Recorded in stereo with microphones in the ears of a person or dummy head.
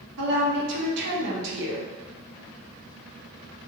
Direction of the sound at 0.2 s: 65° right (ahead or behind).